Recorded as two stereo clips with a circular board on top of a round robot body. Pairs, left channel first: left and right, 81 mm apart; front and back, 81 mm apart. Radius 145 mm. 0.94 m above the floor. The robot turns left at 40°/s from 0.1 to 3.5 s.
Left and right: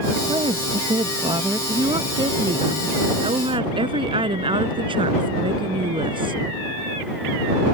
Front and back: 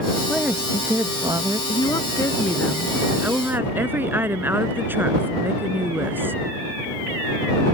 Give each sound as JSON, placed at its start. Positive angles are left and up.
{"t": 0.3, "sound": "a woman speaking", "azimuth_deg": -85}
{"t": 1.7, "sound": "a woman speaking", "azimuth_deg": -40}